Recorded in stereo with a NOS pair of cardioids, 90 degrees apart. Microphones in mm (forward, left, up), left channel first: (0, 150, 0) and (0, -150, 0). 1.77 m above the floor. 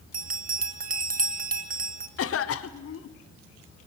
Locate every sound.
0.1 s a bell: 30° right, 1.6 m
2.2 s a cough: 50° left, 1.3 m